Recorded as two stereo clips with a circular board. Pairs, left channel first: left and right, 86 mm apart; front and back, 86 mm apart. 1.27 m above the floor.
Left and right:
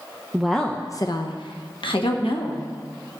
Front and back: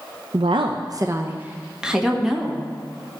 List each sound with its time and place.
0.3 s a woman speaking: 170° right, 0.6 m; by 2.6 s 90° left, 1.7 m